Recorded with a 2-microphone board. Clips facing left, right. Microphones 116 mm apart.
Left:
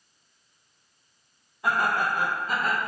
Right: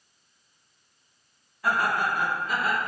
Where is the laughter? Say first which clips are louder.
Even; 25° left (ahead or behind), 1.0 m; by 2.8 s 45° left (ahead or behind), 1.5 m.